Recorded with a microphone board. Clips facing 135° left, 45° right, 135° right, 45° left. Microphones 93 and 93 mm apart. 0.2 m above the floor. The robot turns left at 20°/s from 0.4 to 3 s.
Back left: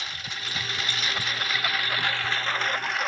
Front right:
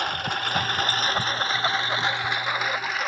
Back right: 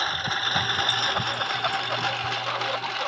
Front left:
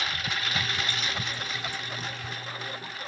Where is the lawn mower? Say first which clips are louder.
Front right 10 dB, back right 5 dB; 80° right; by 3.1 s 135° right.